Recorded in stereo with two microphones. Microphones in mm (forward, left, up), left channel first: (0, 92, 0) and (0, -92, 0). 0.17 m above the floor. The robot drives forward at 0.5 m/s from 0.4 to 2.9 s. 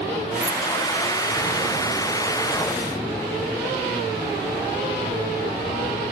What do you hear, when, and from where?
0.4 s keys jangling: 60° right (ahead or behind); by 0.6 s 55° right (ahead or behind)